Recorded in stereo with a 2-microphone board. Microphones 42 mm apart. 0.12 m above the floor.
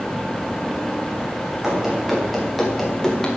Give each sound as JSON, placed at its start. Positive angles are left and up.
{"t": 1.6, "sound": "running footsteps", "side_deg": -10, "distance_m": 5.5}